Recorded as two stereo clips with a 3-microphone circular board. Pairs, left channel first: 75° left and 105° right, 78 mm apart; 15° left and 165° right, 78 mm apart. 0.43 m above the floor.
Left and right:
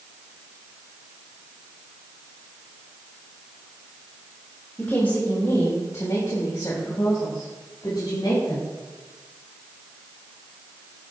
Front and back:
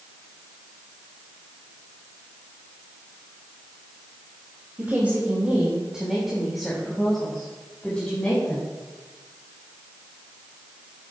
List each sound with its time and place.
4.8 s a woman speaking: 140° left, 2 m; by 8.7 s 85° left, 3.5 m